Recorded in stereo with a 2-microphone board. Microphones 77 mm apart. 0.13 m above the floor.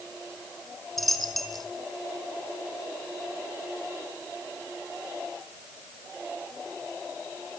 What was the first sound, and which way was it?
A dropped coin, centre (ahead or behind).